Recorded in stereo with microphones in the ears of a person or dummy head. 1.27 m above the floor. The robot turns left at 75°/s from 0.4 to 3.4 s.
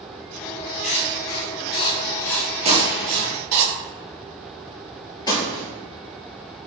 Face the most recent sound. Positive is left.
turn(degrees=25)  # may be behind; listen again after turning